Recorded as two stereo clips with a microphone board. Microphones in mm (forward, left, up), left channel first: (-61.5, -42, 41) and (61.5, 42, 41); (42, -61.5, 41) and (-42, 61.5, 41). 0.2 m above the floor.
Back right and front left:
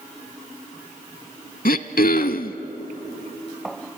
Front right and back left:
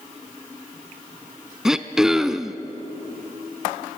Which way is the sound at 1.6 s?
150° right.